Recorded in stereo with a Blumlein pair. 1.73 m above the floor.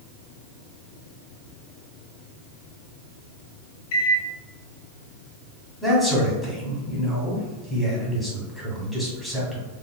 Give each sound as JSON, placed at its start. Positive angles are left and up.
{"t": 3.9, "sound": "a microwave", "azimuth_deg": 50, "distance_m": 0.9}
{"t": 5.8, "sound": "a man speaking", "azimuth_deg": 5, "distance_m": 1.7}